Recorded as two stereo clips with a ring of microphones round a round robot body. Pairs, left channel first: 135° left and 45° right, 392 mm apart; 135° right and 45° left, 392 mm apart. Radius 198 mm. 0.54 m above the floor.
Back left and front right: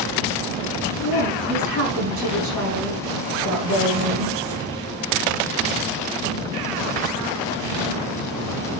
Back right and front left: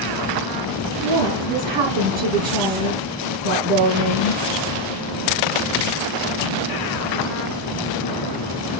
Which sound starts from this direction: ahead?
A woman speaking, at 1.0 s.